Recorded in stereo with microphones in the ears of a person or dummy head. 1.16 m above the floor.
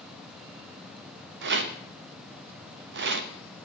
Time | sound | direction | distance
1.4 | a rattle | 60° right (ahead or behind) | 0.9 m